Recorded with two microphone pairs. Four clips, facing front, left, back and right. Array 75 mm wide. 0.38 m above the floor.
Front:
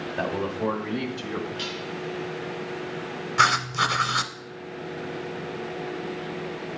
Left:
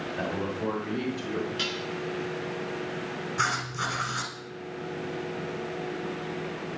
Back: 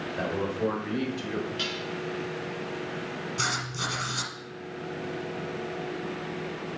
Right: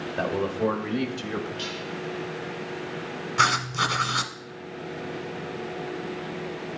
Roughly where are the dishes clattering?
Left.